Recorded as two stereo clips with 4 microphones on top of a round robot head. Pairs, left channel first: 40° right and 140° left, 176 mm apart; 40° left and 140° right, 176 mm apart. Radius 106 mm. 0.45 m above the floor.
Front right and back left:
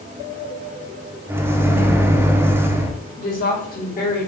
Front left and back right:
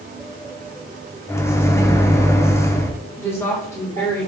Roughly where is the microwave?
Left.